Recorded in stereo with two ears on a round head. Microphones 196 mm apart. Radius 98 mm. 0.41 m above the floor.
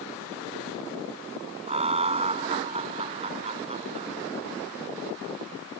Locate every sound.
1.7 s laughter: 30° right (ahead or behind)